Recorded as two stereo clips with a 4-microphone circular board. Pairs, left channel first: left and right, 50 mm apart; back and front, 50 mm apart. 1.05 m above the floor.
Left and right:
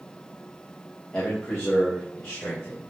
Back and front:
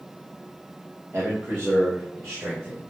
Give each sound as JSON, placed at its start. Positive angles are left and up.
{"t": 1.1, "sound": "a man speaking", "azimuth_deg": 20, "distance_m": 1.4}